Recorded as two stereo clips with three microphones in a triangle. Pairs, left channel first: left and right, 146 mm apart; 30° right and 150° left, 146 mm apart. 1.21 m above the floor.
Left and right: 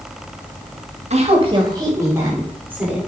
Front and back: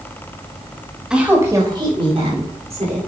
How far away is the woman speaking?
About 1.9 m.